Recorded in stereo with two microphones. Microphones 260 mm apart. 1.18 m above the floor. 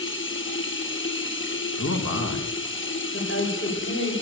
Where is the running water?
50° left (ahead or behind), 1.1 m.